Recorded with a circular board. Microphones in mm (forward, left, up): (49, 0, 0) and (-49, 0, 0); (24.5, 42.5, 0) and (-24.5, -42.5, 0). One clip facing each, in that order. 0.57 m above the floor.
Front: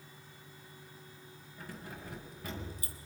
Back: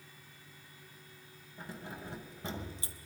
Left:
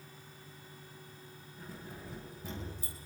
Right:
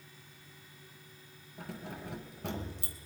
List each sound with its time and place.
1.6 s keys jangling: 115° right, 3 m